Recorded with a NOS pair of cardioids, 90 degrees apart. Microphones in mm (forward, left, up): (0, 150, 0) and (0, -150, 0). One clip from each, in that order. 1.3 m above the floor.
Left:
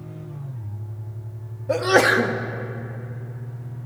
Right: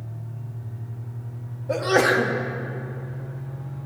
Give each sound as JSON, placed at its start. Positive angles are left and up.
{"t": 1.7, "sound": "a sneeze", "azimuth_deg": 15, "distance_m": 0.6}